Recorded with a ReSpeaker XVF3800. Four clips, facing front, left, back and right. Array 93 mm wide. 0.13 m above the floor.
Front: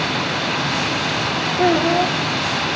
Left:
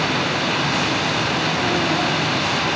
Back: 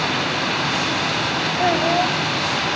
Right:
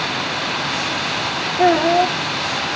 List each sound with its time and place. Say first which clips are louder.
1.6 s a child speaking: right 11 dB, front 3 dB; 65° right, 4 m